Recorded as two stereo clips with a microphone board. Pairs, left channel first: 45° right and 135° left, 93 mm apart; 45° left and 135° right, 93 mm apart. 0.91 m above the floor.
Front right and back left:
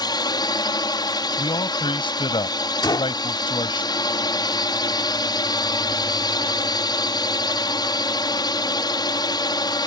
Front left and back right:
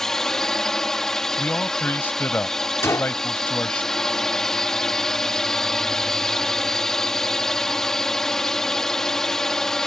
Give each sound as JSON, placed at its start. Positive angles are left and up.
{"t": 0.0, "sound": "a drone", "azimuth_deg": -40}
{"t": 1.4, "sound": "a man speaking", "azimuth_deg": -25}
{"t": 2.8, "sound": "a gunshot", "azimuth_deg": -10}